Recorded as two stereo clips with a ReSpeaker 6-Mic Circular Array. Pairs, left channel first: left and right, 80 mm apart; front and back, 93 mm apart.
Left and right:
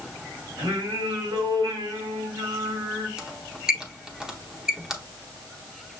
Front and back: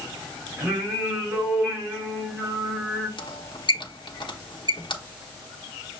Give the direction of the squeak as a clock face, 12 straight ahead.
12 o'clock.